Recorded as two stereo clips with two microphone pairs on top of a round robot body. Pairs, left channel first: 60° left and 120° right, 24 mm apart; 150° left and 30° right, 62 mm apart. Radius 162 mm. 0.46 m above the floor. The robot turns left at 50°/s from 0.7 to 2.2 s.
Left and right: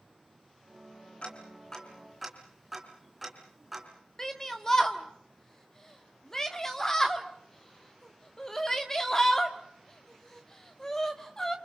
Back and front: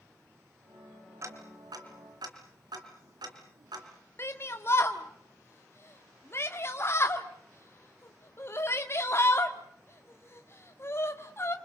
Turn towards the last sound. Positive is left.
turn(degrees=125)